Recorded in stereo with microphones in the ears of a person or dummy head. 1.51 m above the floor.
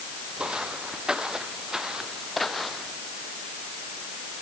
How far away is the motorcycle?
I don't hear a motorcycle.